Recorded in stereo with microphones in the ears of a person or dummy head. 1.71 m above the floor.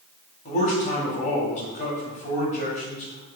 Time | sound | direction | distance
0.5 | a man speaking | 45° left (ahead or behind) | 0.9 m